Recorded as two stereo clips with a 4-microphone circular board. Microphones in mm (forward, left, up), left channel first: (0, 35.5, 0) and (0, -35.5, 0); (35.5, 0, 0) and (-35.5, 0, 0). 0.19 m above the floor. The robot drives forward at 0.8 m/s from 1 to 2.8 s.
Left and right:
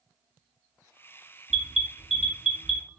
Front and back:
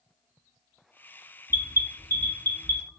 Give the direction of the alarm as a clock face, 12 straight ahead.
6 o'clock.